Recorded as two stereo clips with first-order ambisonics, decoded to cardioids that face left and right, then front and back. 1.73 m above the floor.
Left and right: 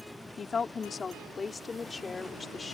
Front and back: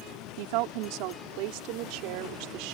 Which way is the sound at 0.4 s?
165° left.